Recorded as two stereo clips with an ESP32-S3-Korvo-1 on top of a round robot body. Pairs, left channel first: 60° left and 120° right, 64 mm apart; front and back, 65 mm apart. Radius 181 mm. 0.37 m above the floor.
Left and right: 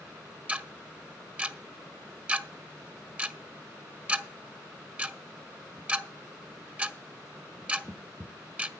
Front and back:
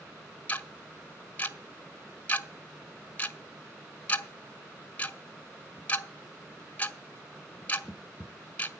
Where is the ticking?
55° right, 0.9 m.